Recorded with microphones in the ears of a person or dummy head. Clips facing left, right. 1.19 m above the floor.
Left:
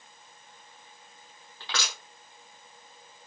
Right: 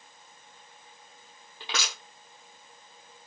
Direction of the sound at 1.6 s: 10° right (ahead or behind).